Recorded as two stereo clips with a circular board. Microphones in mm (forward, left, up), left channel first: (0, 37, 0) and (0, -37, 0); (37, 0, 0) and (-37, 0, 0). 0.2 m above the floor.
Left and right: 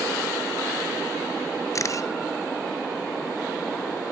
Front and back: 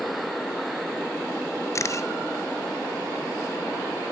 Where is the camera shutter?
45° left, 1.0 m.